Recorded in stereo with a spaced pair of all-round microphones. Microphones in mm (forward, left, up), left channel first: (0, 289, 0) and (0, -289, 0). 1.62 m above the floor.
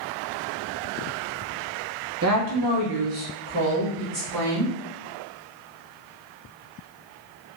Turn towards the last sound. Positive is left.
turn(degrees=-65)  # may be behind; listen again after turning